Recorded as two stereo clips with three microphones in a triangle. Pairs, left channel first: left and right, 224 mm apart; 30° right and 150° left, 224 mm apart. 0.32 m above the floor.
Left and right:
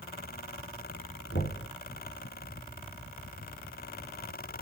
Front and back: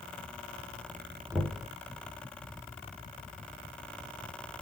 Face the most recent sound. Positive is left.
turn(degrees=65)